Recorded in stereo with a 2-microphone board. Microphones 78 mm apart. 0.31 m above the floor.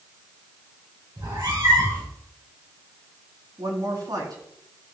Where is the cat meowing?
50° right (ahead or behind), 5 m.